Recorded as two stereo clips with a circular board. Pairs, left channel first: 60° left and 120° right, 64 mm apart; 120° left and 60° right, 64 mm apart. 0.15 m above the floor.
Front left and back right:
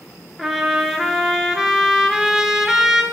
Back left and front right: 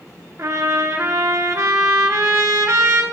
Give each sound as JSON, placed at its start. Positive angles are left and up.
{"t": 0.4, "sound": "a trumpet", "azimuth_deg": -35, "distance_m": 0.6}